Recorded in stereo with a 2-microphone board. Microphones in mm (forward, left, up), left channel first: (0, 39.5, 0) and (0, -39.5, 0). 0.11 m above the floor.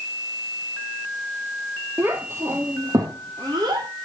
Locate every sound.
2.0 s a child speaking: 25° right (ahead or behind), 2 m; by 3.9 s 55° right (ahead or behind), 3.5 m